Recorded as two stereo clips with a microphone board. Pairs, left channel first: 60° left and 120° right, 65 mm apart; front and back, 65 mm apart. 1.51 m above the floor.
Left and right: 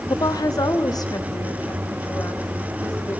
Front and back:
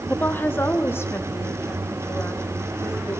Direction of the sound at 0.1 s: 65° left.